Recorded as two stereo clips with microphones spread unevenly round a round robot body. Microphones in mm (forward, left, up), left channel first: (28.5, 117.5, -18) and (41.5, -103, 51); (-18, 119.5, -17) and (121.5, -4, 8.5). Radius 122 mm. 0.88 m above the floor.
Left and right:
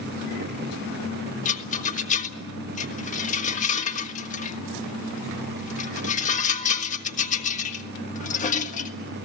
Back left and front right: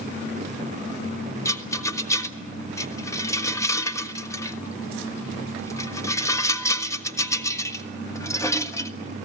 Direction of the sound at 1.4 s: 75° left.